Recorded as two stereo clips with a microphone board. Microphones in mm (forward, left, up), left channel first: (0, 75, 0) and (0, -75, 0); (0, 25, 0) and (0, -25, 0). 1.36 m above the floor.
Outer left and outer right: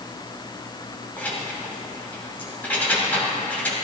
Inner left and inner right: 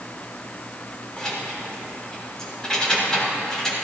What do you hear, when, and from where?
1.2 s keys jangling: 10° left (ahead or behind), 3 m